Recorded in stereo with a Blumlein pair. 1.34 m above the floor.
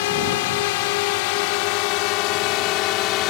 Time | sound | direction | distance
0.0 | a drone | 50° left | ?